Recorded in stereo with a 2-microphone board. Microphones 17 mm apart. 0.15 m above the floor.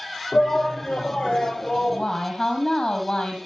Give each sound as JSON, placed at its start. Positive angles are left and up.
{"t": 0.3, "sound": "a shout", "side_deg": 75, "distance_m": 5.0}
{"t": 1.8, "sound": "a woman speaking", "side_deg": 45, "distance_m": 5.5}